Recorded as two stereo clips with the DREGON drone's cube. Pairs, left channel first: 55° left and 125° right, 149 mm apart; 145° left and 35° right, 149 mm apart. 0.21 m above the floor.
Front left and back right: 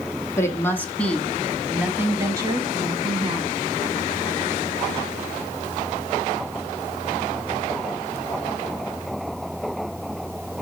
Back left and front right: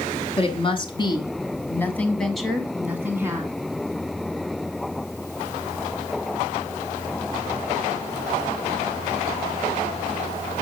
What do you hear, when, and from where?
0.4 s a woman speaking: 120° left, 1.3 m; by 3.5 s 95° right, 1.3 m